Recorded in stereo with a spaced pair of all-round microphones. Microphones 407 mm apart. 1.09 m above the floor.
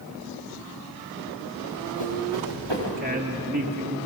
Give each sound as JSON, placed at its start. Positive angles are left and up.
{"t": 1.6, "sound": "running footsteps", "side_deg": -80, "distance_m": 9.0}
{"t": 3.0, "sound": "a woman speaking", "side_deg": -25, "distance_m": 2.5}